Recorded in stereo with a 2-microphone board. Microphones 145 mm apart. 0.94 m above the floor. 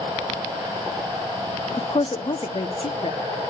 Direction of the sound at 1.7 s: 40° left (ahead or behind).